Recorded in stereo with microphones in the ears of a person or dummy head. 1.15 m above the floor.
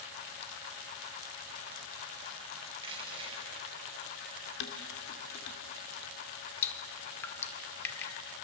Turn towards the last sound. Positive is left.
turn(degrees=10)  # may be behind; listen again after turning